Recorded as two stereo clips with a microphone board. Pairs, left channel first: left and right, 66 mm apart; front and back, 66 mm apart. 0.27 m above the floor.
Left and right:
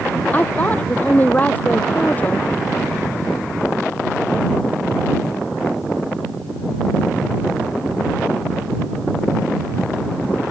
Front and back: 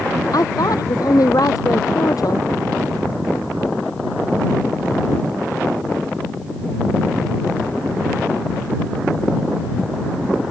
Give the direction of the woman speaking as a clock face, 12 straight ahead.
11 o'clock.